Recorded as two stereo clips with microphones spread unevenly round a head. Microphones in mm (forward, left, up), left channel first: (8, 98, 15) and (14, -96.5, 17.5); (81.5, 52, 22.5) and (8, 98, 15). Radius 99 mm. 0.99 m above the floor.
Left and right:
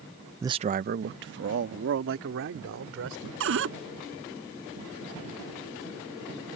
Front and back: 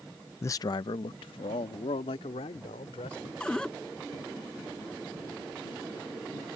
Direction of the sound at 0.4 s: 30° right.